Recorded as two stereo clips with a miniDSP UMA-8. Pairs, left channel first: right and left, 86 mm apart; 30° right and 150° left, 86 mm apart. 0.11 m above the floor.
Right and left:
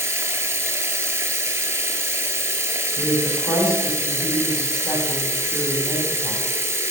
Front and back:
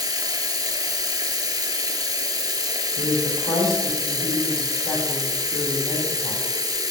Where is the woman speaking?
50° right, 3.5 m.